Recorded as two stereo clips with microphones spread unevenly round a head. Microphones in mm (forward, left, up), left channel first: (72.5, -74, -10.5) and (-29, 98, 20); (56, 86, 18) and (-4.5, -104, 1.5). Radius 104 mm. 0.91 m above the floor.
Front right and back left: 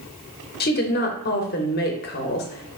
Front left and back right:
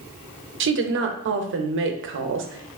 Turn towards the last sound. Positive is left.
turn(degrees=-95)